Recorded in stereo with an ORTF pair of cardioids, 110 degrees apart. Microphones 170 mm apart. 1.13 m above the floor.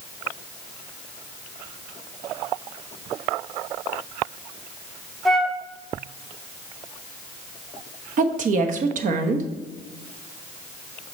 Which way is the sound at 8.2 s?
50° right.